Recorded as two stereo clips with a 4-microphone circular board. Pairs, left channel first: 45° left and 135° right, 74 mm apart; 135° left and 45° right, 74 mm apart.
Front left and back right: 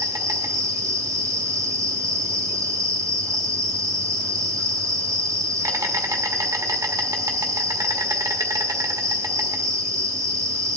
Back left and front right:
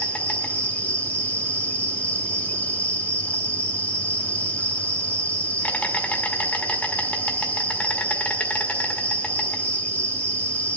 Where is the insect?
160° right, 1.7 m.